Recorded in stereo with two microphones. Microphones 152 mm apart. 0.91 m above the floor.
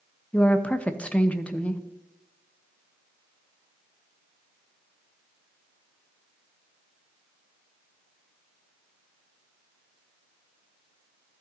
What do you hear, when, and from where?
0.3 s a woman speaking: 10° left (ahead or behind), 0.7 m